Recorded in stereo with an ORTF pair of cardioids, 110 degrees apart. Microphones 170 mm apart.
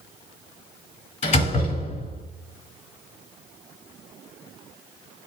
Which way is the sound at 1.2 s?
45° left.